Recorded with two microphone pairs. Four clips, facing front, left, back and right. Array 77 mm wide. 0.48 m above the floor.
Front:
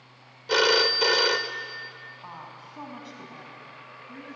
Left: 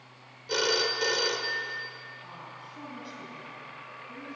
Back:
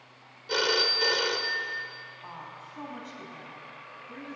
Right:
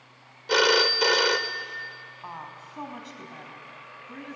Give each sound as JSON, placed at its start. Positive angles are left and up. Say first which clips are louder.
{"t": 0.5, "sound": "a phone ringing", "louder": "right 7 dB, front 6 dB", "azimuth_deg": -60, "distance_m": 1.1}
{"t": 2.2, "sound": "a woman speaking", "louder": "right 5 dB, even", "azimuth_deg": -80, "distance_m": 4.0}